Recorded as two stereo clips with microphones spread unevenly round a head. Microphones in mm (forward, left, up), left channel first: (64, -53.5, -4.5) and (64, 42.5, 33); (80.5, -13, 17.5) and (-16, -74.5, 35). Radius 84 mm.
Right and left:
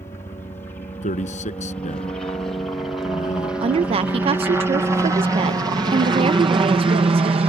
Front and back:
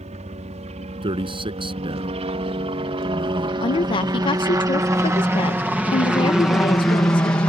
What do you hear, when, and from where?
0.0 s a helicopter: 140° right; by 7.5 s 90° left
1.0 s a man speaking: 100° right
3.6 s a woman speaking: 50° left